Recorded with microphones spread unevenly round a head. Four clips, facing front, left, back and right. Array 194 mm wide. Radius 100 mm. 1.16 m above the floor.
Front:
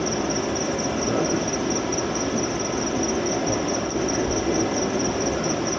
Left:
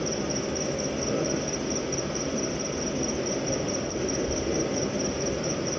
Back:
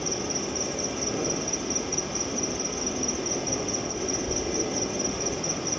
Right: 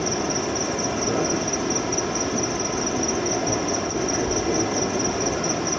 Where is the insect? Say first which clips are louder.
Right 4 dB, front 7 dB; 40° right, 1.0 m.